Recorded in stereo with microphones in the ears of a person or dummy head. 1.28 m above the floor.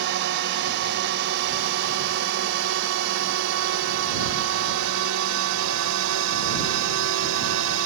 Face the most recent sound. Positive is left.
turn(degrees=-80)